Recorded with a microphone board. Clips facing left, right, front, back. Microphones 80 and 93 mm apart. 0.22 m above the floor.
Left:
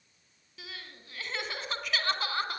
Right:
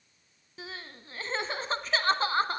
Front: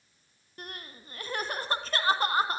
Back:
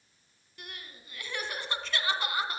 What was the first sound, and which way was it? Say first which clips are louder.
Crying: right 4 dB, front 4 dB; 40° right.